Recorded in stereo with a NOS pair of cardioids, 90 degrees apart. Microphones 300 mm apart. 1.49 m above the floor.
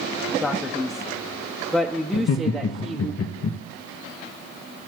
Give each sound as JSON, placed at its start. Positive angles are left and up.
{"t": 0.4, "sound": "a man speaking", "azimuth_deg": 0, "distance_m": 0.6}
{"t": 2.1, "sound": "laughter", "azimuth_deg": 55, "distance_m": 0.6}